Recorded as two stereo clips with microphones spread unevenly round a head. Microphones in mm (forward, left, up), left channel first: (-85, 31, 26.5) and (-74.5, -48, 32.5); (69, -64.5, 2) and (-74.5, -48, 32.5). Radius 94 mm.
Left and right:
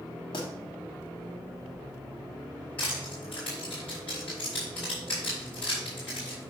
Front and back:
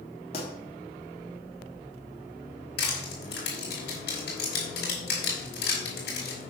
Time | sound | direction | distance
0.3 | a pop | 50° left | 2.5 m
2.8 | crushing | 15° left | 4.5 m